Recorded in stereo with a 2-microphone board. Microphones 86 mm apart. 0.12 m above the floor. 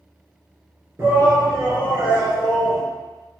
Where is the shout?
25° right (ahead or behind), 2.0 m; by 2.8 s 15° right (ahead or behind), 2.5 m.